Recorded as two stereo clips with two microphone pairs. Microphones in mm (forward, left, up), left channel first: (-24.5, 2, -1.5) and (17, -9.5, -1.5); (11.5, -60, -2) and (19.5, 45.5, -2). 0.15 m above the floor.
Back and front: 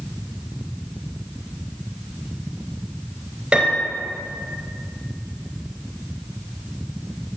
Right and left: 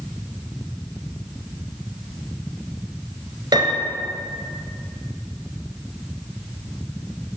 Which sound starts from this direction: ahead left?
A piano, at 3.5 s.